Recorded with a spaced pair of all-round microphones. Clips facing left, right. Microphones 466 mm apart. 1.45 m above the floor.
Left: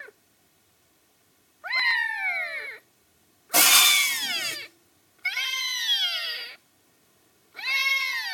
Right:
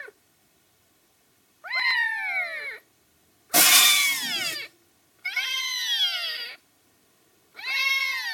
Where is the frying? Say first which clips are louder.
Right 2 dB; 40° right (ahead or behind), 0.9 m.